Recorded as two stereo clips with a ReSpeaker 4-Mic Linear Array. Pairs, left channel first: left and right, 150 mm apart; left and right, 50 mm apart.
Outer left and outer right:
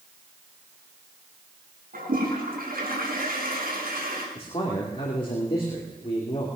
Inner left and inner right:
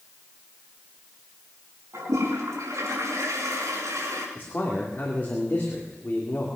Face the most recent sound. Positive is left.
turn(degrees=35)  # may be behind; listen again after turning